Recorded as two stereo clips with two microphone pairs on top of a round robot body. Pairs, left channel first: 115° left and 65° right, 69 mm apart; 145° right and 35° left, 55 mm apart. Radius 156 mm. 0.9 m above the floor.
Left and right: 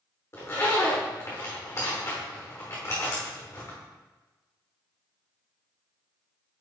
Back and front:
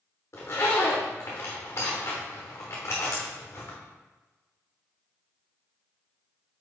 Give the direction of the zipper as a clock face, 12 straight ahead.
6 o'clock.